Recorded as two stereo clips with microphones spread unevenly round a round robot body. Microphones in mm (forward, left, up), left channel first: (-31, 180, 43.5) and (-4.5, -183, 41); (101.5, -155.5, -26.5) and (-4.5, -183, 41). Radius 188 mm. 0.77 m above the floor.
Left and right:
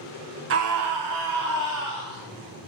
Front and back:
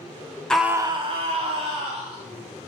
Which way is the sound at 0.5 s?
40° right.